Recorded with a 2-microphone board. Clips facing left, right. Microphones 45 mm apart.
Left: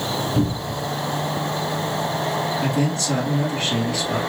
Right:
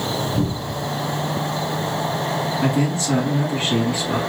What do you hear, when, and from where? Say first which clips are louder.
0.3 s a cupboard door: left 1 dB; 35° left (ahead or behind), 1.2 m
2.6 s a man speaking: right 2 dB; 15° right (ahead or behind), 1.5 m